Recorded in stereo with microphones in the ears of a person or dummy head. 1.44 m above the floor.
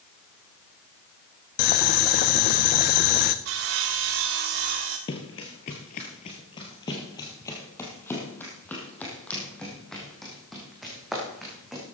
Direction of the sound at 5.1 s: 25° left (ahead or behind).